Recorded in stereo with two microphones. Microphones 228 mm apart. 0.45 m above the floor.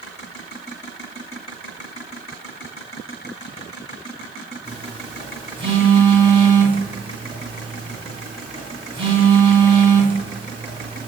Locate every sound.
4.7 s a phone buzzing: 25° right (ahead or behind), 0.8 m